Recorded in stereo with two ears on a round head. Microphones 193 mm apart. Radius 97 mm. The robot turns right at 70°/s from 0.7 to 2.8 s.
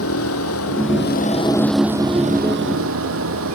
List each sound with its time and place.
0.0 s a vehicle: 105° left; by 3.6 s 105° right